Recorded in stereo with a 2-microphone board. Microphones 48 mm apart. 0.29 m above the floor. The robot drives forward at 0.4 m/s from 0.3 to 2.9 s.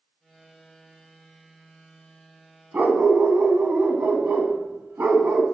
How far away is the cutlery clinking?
I don't hear cutlery clinking.